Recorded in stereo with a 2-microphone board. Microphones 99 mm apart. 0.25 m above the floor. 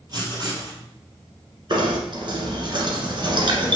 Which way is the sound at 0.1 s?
45° right (ahead or behind).